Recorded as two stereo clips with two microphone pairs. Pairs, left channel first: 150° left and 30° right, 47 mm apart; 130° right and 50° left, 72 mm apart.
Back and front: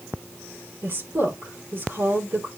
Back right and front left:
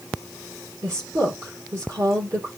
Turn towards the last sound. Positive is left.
turn(degrees=10)